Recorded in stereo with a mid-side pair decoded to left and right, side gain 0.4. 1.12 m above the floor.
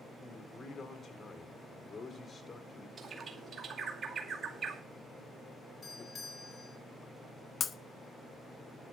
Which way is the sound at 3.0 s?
50° right.